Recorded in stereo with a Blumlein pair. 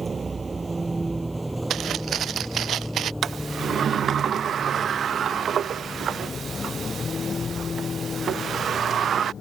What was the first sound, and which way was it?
A vehicle, 15° right.